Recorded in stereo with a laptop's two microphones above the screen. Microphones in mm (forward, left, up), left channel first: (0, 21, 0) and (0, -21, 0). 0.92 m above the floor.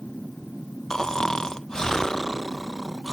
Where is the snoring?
10° left (ahead or behind).